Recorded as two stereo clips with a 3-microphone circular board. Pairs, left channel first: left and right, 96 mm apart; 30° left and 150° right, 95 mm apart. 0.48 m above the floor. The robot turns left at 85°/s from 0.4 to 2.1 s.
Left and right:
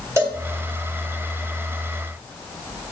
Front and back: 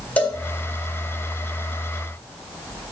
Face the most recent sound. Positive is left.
turn(degrees=175)